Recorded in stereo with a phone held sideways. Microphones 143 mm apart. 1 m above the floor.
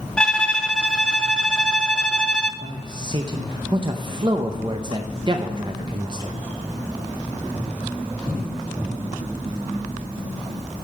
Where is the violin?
5° left (ahead or behind), 0.5 m.